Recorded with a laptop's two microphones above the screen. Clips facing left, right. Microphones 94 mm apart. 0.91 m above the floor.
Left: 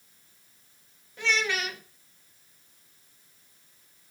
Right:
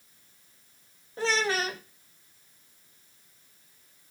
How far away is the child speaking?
About 0.6 m.